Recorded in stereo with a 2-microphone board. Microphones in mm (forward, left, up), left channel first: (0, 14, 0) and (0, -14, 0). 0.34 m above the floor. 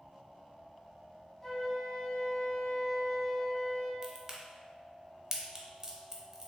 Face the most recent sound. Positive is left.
turn(degrees=-20)  # may be behind; listen again after turning